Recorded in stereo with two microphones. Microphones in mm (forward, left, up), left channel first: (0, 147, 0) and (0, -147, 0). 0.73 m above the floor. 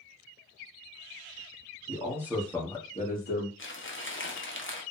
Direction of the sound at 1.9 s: 20° right (ahead or behind).